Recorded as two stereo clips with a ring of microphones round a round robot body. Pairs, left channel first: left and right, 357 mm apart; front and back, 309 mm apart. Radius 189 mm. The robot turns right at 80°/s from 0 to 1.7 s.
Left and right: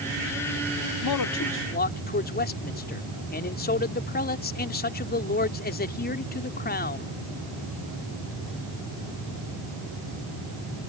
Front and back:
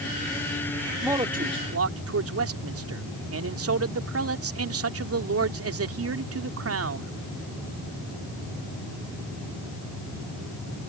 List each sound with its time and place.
1.0 s a man speaking: 95° left; by 7.1 s 150° left